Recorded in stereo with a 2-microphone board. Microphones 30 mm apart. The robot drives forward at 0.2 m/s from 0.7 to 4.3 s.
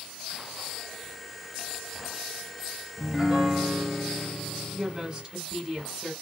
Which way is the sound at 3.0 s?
5° right (ahead or behind).